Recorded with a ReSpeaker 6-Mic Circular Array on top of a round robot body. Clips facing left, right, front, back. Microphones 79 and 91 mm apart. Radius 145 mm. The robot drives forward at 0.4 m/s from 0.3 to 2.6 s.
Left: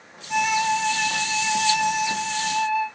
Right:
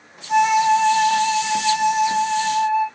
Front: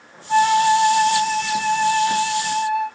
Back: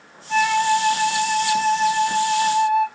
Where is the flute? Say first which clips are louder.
Right 7 dB, front 3 dB; 45° right, 1.0 m; by 2.9 s 130° right, 1.0 m.